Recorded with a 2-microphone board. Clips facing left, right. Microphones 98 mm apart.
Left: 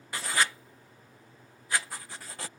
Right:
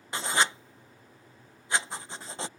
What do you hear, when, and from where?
0.1 s writing: 25° right (ahead or behind)